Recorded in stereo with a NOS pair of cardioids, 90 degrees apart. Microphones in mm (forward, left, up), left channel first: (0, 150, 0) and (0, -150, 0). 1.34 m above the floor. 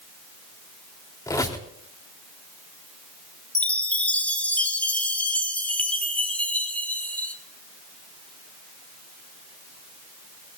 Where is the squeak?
10° left, 3.5 m.